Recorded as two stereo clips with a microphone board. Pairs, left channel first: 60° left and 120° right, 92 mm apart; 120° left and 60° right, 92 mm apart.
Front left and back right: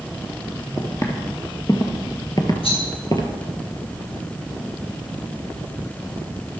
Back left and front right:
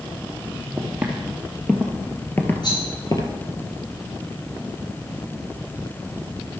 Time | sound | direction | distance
0.8 | footsteps | 10° left | 2 m
2.6 | a rattle | 75° left | 4.5 m